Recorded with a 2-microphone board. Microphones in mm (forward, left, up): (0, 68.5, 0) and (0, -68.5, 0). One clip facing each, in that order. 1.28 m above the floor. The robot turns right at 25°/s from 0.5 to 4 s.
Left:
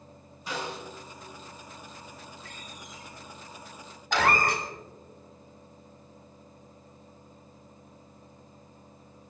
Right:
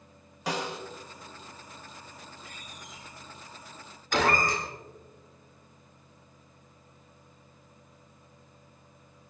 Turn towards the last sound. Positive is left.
turn(degrees=60)  # may be behind; listen again after turning